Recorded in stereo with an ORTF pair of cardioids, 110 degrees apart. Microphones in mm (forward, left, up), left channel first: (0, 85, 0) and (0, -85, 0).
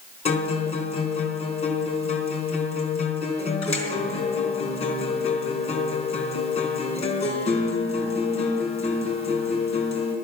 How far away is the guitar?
About 4 m.